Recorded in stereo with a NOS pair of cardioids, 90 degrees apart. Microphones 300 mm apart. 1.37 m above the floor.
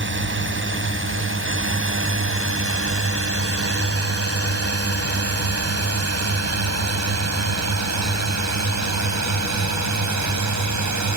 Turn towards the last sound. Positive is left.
turn(degrees=-70)